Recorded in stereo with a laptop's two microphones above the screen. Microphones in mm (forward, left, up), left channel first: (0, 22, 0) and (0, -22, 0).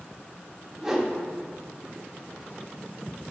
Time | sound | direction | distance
0.8 | a whoosh | 5° right (ahead or behind) | 0.8 m